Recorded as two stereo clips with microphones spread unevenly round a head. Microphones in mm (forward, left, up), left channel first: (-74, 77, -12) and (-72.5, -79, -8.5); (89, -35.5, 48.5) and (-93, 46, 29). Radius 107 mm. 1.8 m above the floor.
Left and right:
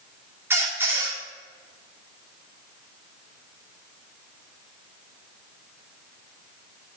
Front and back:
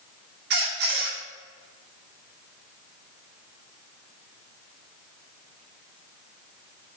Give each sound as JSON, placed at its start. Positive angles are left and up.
{"t": 0.5, "sound": "a squeak", "azimuth_deg": -165, "distance_m": 2.5}